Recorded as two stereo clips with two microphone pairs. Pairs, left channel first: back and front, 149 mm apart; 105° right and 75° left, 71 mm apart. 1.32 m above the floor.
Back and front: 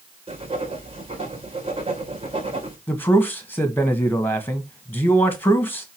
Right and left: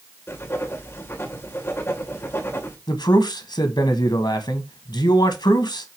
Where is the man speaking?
105° right, 1.7 m.